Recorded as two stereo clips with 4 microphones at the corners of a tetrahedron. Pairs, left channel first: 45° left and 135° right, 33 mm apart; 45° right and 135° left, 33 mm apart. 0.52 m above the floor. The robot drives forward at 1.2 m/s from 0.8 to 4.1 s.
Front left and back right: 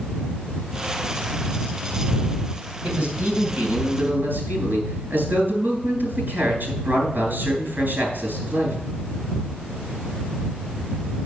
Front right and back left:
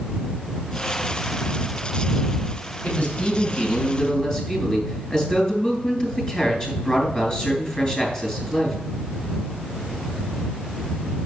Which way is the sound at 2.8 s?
90° right.